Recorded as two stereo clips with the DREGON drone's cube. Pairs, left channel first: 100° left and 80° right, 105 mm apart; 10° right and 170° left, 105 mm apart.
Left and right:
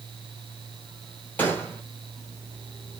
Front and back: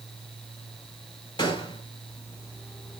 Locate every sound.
1.4 s a gunshot: 30° left, 2 m